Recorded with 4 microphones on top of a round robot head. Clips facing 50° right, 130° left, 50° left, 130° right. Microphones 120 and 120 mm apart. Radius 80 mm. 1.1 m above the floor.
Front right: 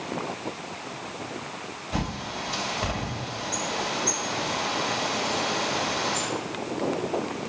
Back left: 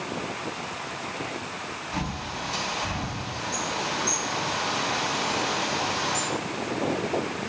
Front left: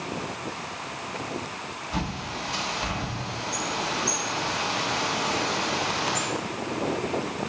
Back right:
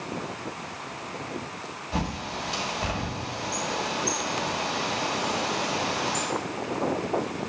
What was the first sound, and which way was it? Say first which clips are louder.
A bird: front right 2 dB, back right 1 dB; 80° right.